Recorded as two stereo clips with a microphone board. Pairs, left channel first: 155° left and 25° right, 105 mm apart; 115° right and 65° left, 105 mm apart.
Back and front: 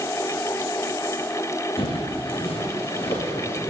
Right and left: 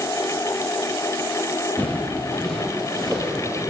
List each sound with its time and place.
1.8 s footsteps: 170° left, 2.5 m; by 3.6 s 155° left, 3.5 m